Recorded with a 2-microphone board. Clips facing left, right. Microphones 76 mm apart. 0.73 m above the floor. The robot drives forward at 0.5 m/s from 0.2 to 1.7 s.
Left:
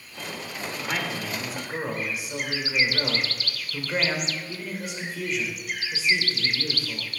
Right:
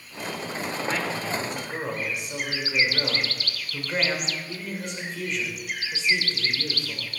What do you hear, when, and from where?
0.8 s a man speaking: 5° left (ahead or behind), 2 m; by 7.1 s centre (ahead or behind), 2.5 m